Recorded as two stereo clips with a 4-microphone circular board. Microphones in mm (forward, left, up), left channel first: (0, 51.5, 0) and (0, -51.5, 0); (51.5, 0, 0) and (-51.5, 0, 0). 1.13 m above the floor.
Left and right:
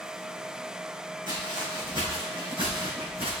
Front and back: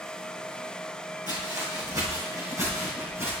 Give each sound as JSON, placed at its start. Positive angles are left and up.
{"t": 1.3, "sound": "footsteps", "azimuth_deg": -130, "distance_m": 3.5}